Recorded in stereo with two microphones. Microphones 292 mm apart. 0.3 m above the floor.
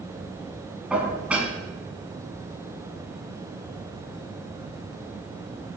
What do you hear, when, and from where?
0.9 s dishes clattering: 5° right (ahead or behind), 1.9 m